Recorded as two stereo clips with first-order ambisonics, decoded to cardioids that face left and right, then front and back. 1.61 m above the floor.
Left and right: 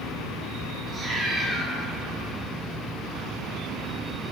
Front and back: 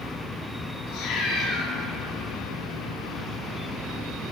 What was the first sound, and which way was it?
A cat meowing, 25° right.